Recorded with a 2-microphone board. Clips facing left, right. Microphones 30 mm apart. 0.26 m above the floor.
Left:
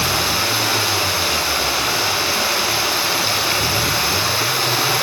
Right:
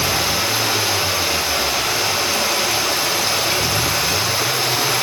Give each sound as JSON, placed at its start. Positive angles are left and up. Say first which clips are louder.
{"t": 0.0, "sound": "running water", "louder": "even", "side_deg": 15, "distance_m": 1.7}